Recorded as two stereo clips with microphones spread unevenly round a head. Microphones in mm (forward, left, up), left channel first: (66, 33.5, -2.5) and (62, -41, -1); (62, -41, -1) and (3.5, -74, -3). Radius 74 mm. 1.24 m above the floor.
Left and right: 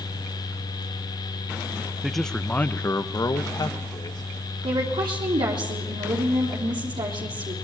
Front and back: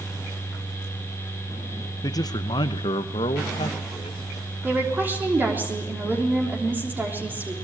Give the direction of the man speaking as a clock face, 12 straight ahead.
12 o'clock.